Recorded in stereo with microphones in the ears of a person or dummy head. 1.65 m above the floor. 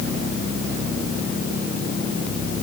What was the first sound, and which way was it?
Only background noise.